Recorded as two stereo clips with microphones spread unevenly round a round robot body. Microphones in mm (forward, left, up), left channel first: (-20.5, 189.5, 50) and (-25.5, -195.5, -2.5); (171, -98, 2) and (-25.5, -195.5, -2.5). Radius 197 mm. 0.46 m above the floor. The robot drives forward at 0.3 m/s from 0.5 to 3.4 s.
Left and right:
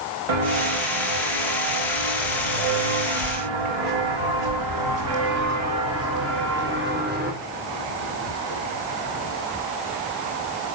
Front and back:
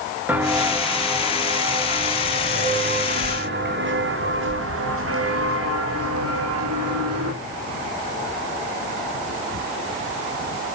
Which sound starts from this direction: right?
Footsteps, at 0.3 s.